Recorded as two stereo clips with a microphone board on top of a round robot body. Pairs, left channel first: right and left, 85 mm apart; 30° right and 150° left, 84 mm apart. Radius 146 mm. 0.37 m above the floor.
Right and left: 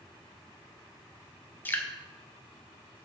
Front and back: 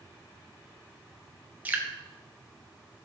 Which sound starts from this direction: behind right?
Dripping, at 1.6 s.